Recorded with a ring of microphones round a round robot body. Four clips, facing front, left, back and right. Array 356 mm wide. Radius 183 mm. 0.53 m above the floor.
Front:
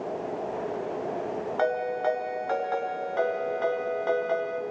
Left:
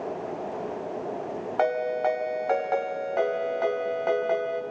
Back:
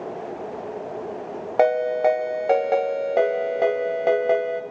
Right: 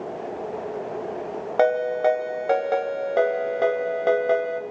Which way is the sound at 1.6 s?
140° right.